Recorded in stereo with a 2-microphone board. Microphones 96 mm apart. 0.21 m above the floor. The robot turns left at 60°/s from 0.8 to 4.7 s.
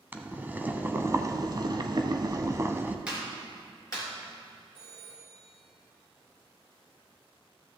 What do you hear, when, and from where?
0.1 s boiling: 25° right, 0.7 m; by 3.0 s 155° right, 0.7 m
3.1 s a clap: 10° right (ahead or behind), 3.5 m; by 4.1 s 45° left (ahead or behind), 3.5 m
4.8 s a phone ringing: 75° left (ahead or behind), 3 m